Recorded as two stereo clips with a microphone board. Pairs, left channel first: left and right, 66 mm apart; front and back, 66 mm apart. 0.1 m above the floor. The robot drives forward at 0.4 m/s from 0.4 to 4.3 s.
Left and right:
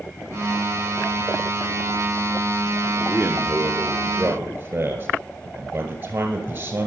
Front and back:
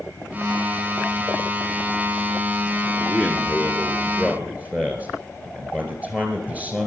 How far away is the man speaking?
About 1.3 m.